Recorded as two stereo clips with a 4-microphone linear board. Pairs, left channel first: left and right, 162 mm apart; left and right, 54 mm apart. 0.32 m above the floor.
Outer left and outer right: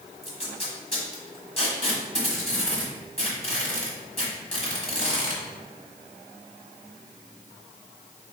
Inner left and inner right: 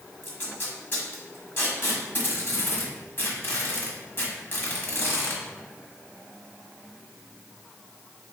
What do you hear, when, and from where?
0.2 s tape being pulled: 40° left (ahead or behind), 1.3 m